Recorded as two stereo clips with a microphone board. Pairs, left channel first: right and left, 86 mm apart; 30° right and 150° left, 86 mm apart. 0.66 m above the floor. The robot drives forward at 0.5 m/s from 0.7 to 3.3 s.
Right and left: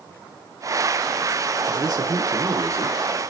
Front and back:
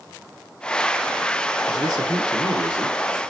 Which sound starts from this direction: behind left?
A man speaking, at 1.7 s.